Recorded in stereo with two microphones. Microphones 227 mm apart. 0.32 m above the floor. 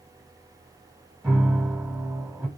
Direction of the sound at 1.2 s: 5° right (ahead or behind).